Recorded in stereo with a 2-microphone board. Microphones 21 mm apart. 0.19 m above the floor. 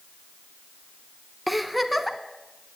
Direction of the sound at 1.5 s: 10° right (ahead or behind).